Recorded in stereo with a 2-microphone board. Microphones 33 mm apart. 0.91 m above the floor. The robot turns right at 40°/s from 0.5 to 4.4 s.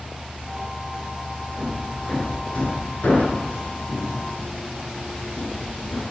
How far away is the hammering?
About 8.5 m.